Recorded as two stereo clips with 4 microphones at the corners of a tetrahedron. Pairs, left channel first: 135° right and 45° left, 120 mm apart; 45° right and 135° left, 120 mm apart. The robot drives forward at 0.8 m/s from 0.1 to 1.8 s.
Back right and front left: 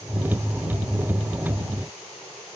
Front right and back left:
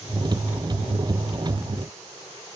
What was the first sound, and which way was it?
Only background noise.